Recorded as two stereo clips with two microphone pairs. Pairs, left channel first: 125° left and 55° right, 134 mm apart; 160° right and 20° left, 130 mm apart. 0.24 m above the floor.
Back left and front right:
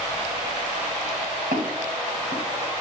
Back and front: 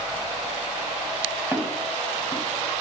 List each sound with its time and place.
1.5 s footsteps: 50° right, 2.5 m